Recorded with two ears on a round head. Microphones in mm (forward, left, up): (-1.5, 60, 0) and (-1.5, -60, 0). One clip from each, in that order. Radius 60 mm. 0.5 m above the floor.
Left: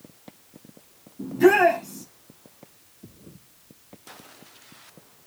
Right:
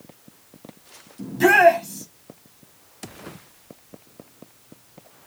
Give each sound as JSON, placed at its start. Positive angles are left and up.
{"t": 1.2, "sound": "a shout", "side_deg": -60, "distance_m": 4.0}